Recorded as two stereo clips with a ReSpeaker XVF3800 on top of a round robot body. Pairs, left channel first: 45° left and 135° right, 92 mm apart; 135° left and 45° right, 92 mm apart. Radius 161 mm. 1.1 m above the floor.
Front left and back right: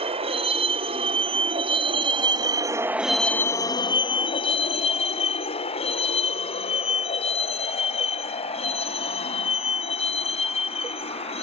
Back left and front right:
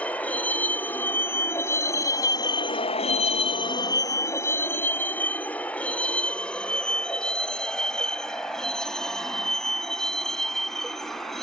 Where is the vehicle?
150° right; by 11.4 s 50° left.